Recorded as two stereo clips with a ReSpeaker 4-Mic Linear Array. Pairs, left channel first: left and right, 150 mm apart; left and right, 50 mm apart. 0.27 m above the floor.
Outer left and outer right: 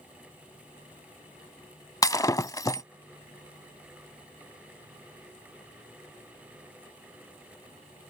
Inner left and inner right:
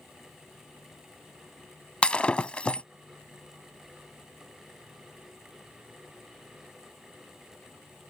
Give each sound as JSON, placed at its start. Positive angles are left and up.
{"t": 2.0, "sound": "breaking glass", "side_deg": 25}